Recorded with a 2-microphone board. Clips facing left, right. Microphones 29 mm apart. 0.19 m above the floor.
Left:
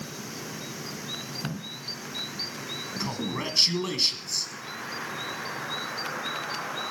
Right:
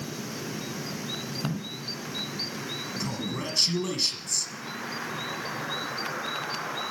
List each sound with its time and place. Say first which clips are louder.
1.4 s a man speaking: right 2 dB; 10° right (ahead or behind), 1.2 m; by 3.6 s 50° left (ahead or behind), 2 m
3.0 s a man speaking: left 3 dB; 25° left (ahead or behind), 1.4 m